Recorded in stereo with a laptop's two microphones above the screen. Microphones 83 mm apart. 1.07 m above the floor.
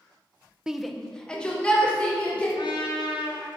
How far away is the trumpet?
About 2.5 m.